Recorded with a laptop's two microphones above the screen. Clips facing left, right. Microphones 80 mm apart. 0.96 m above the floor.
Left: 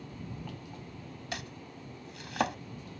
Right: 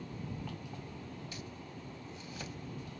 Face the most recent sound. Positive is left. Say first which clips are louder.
# left 4 dB
turn(degrees=80)